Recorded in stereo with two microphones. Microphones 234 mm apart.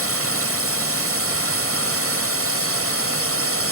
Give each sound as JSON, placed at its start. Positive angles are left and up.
{"t": 0.0, "sound": "a drone", "side_deg": -60}